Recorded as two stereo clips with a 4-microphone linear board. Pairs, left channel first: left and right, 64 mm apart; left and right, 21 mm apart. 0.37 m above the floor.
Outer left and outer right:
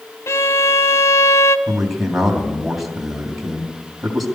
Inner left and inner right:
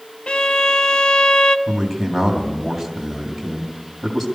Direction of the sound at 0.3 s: 55° left (ahead or behind).